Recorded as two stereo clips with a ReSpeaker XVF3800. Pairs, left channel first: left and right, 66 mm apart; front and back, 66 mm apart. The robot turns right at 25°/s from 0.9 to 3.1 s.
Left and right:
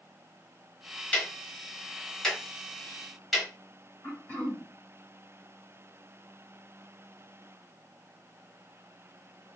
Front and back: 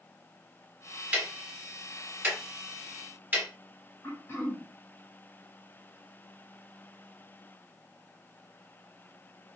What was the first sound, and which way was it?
Ticking, 135° left.